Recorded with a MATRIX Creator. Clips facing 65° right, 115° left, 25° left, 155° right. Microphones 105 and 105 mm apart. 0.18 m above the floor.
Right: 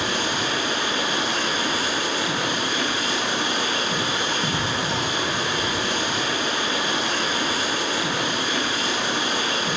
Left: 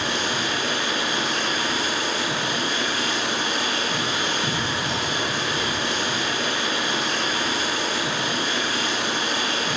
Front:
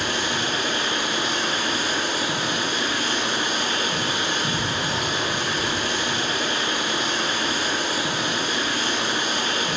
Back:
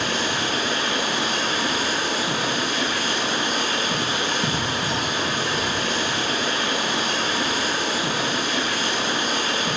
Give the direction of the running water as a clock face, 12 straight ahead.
5 o'clock.